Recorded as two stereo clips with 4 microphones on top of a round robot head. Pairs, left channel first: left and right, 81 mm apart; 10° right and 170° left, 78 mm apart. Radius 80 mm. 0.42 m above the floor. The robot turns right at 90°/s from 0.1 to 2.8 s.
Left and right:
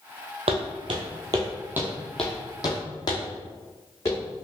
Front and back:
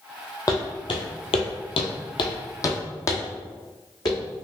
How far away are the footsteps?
About 0.8 m.